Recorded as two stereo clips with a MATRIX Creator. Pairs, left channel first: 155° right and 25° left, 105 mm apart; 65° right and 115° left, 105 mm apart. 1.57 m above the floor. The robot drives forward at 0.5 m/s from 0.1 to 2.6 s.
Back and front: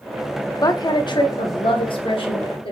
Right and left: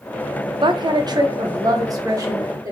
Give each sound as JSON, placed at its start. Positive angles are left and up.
{"t": 0.6, "sound": "a woman speaking", "azimuth_deg": 150, "distance_m": 0.5}